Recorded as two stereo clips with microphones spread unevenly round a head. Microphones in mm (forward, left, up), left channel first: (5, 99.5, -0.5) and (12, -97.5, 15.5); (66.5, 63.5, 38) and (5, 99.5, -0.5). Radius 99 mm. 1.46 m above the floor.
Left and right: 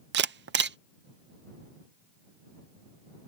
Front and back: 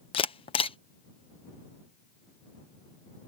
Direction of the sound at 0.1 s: 50° right.